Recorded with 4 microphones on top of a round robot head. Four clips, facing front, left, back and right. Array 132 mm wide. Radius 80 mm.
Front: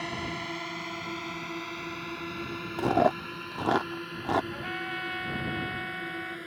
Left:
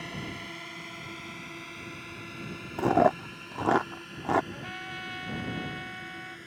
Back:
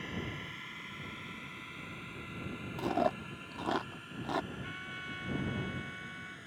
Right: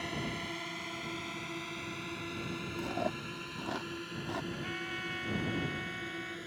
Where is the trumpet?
20° left.